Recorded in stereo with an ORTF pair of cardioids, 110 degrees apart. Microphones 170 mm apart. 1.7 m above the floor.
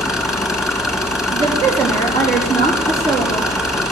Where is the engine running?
Straight ahead, 1.5 m.